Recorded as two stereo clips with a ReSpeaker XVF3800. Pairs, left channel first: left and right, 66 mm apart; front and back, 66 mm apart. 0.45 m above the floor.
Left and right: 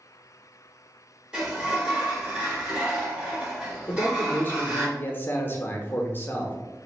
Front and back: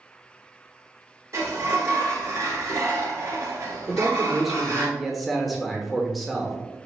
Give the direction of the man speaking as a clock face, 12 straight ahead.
9 o'clock.